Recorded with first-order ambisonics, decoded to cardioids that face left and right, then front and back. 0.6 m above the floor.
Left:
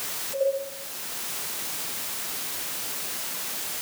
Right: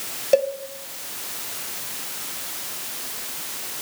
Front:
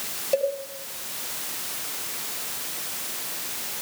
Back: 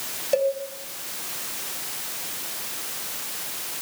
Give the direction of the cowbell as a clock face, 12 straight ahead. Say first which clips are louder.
Right 7 dB, back 2 dB; 3 o'clock.